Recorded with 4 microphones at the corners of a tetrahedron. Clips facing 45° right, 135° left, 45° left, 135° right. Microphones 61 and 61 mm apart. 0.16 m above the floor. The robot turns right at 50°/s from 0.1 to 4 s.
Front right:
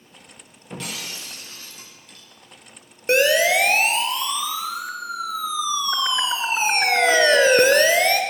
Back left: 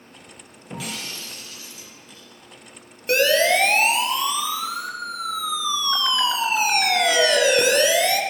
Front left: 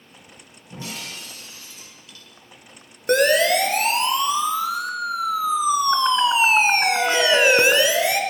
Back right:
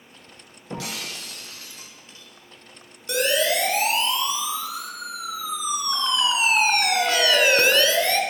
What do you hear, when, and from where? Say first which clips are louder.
0.7 s breaking glass: back left 1 dB, back right 2 dB; 145° right, 8 m; by 2.3 s 65° right, 8 m
3.1 s a siren: front right 1 dB, front left 5 dB; 15° left, 3.5 m; by 8.2 s 25° right, 3 m